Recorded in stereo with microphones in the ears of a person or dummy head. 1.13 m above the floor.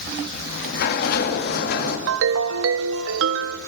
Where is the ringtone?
70° right (ahead or behind), 1.0 m.